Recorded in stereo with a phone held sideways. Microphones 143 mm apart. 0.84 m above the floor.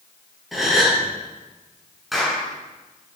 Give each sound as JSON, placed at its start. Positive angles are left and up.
{"t": 0.5, "sound": "a gasp", "side_deg": 0, "distance_m": 5.5}
{"t": 2.1, "sound": "a clap", "side_deg": 0, "distance_m": 9.0}